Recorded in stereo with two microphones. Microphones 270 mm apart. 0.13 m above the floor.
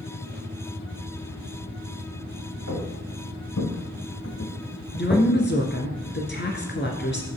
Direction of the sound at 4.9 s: 40° left (ahead or behind).